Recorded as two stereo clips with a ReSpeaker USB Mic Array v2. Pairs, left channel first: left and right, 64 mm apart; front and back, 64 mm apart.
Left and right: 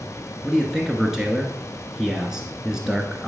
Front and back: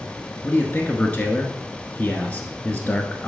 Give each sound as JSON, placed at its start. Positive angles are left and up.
{"t": 0.4, "sound": "a man speaking", "azimuth_deg": -25, "distance_m": 1.1}